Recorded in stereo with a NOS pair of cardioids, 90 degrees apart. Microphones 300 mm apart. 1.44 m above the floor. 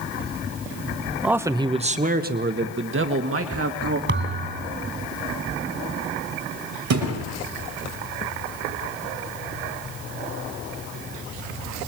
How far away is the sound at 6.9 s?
About 5.5 m.